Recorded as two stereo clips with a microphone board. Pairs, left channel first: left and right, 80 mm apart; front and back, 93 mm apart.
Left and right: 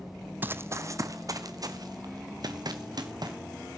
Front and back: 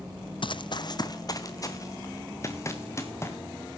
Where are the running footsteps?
25° right, 0.6 m; by 3.4 s 60° right, 2.5 m.